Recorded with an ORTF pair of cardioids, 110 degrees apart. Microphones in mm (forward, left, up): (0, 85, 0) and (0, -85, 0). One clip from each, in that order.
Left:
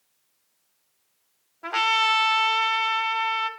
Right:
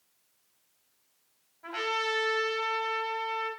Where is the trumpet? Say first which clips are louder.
Left 9 dB; 65° left, 2.5 m.